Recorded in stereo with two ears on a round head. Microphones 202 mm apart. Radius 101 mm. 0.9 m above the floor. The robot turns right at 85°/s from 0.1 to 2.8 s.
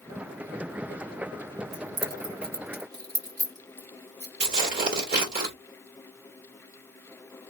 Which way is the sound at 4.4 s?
40° right (ahead or behind).